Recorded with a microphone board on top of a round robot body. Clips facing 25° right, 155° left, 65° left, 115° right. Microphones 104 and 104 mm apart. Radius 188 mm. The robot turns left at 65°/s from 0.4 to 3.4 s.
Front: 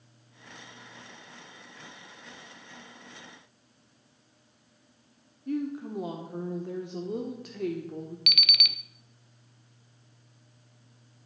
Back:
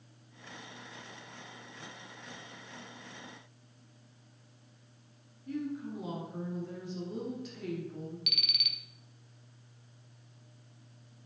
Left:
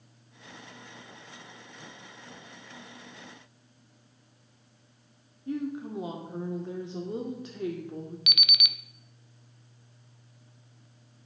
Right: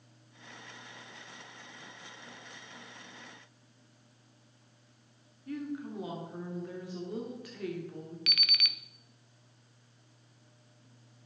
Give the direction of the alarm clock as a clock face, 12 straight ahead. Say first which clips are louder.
Front 7 dB, left 3 dB; 12 o'clock.